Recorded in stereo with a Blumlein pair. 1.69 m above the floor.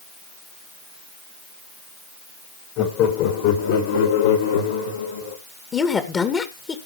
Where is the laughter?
35° left, 3 m; by 5.4 s 75° left, 4.5 m.